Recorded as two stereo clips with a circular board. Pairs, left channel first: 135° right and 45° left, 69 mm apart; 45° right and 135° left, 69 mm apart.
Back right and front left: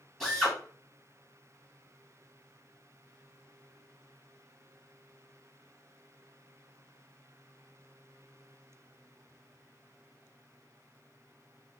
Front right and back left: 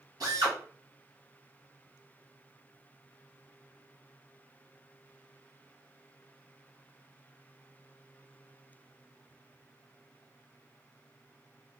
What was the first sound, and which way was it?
A drill, 140° left.